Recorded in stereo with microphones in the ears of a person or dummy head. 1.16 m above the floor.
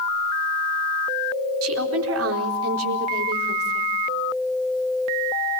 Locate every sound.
1.6 s a woman speaking: 80° right, 4 m